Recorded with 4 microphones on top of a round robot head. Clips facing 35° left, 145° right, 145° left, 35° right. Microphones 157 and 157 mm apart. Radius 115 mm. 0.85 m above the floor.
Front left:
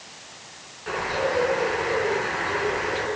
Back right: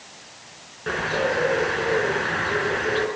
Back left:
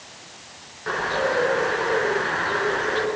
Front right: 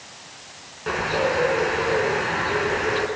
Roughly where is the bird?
Right.